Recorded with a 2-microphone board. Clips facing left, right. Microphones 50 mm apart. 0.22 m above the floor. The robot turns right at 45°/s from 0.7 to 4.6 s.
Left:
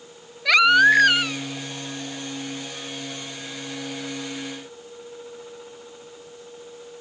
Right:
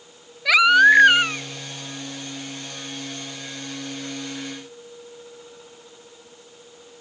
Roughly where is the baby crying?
Behind.